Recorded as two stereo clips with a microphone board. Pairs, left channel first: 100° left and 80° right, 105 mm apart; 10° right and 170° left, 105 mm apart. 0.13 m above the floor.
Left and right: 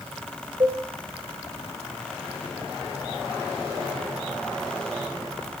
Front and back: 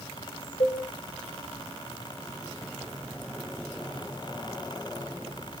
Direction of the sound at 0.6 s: 30° right.